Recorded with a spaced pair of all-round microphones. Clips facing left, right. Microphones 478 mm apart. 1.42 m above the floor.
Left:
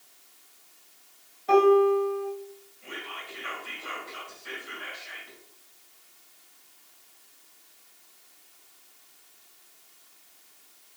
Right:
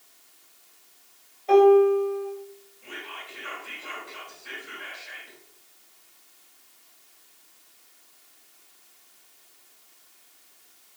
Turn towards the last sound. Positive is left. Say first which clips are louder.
# left 1 dB
turn(degrees=20)  # may be behind; listen again after turning